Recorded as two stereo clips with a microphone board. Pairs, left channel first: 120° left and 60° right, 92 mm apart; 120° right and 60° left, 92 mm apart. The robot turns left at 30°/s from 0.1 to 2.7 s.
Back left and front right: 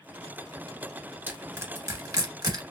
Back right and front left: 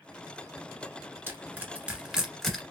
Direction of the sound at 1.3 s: Straight ahead.